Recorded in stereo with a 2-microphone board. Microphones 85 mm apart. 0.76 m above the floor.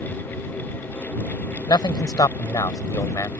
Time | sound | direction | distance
1.7 | a man speaking | 60° left (ahead or behind) | ?